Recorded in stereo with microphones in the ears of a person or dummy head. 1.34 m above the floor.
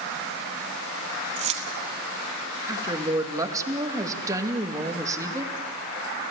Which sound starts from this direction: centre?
A woman speaking, at 2.7 s.